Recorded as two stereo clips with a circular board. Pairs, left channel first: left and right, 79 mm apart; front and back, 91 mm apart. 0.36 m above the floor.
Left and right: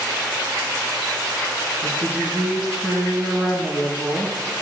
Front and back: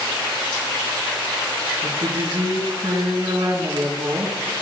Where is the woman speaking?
160° right, 4.5 m.